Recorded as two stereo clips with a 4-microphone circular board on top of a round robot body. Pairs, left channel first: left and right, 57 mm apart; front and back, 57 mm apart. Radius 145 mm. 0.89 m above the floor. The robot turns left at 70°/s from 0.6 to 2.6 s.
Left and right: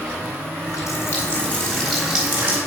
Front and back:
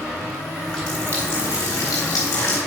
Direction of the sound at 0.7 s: 85° left.